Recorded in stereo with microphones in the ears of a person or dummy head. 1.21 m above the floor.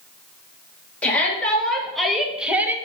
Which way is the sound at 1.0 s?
10° left (ahead or behind).